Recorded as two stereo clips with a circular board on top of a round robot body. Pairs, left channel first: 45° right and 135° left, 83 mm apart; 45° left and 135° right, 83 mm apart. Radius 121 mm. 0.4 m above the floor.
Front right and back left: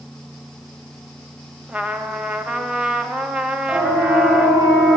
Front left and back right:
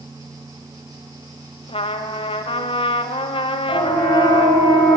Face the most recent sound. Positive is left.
turn(degrees=75)